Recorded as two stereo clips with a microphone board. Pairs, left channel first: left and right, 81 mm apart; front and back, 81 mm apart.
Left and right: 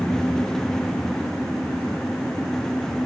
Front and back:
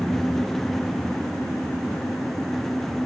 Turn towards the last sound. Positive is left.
No sound to turn to.